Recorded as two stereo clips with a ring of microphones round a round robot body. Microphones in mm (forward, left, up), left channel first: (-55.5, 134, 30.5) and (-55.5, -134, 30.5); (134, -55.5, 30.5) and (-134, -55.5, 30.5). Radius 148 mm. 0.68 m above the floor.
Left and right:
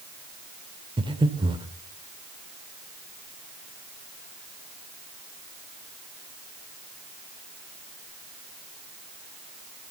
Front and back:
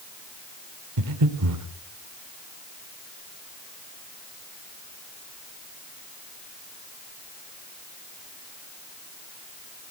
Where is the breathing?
160° right, 1.8 m.